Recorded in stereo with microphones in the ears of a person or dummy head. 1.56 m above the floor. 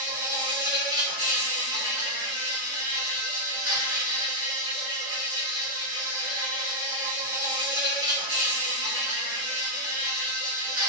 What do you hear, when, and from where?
0.0 s an insect: 65° right (ahead or behind), 1.7 m